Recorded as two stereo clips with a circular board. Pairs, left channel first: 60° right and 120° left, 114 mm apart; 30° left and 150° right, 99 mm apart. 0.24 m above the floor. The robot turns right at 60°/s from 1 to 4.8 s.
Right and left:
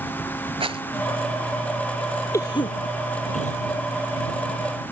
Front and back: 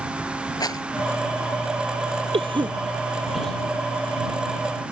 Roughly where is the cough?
Behind right.